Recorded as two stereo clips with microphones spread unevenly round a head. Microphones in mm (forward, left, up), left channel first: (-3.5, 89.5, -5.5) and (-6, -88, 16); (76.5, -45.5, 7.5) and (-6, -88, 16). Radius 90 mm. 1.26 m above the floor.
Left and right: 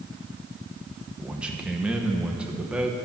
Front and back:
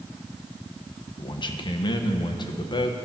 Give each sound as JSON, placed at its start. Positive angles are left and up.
{"t": 1.2, "sound": "a man speaking", "azimuth_deg": -5, "distance_m": 1.2}